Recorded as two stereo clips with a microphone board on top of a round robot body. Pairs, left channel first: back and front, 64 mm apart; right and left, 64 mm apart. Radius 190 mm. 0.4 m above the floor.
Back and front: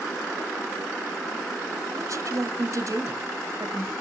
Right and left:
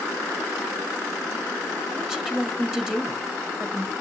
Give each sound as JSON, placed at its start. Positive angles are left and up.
{"t": 1.9, "sound": "a woman speaking", "azimuth_deg": 10, "distance_m": 1.3}